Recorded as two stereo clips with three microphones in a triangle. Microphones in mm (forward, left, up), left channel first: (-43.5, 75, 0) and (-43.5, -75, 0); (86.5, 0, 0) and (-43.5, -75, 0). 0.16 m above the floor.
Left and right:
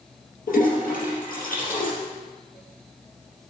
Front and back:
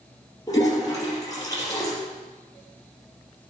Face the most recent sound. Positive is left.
turn(degrees=95)